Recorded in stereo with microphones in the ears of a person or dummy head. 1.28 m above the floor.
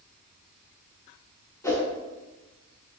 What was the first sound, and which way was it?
A whoosh, 20° left (ahead or behind).